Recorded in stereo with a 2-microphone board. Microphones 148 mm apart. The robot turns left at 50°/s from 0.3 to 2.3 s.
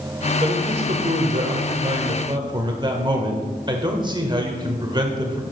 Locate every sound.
0.4 s a man speaking: 45° right, 1.5 m; by 5.4 s 140° right, 1.5 m